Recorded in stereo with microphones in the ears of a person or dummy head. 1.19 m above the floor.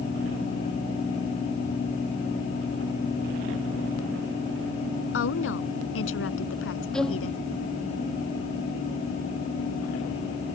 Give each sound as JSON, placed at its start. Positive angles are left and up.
{"t": 5.1, "sound": "a woman speaking", "side_deg": 80}
{"t": 6.9, "sound": "a violin", "side_deg": 5}